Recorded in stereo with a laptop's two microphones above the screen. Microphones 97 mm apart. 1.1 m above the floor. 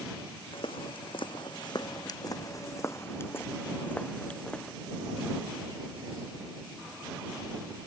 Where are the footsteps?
70° left (ahead or behind); by 4.7 s 5° left (ahead or behind).